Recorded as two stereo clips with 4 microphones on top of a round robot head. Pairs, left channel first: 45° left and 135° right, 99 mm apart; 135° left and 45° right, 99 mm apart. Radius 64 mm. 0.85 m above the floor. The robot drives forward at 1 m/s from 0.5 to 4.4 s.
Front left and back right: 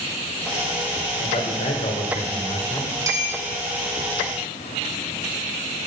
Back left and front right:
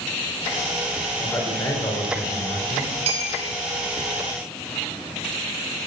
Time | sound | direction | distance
1.2 | a man speaking | 65° left | 3.5 m
3.1 | a clink | 75° right | 3 m